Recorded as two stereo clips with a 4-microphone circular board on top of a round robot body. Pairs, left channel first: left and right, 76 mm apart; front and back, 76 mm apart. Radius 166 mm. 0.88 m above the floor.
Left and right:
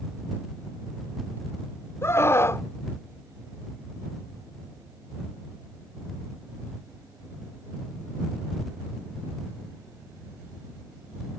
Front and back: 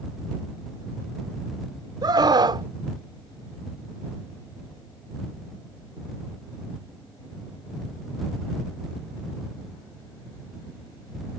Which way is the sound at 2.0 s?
150° left.